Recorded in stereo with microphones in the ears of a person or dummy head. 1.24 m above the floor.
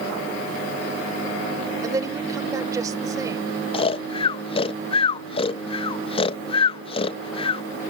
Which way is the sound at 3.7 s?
25° left (ahead or behind).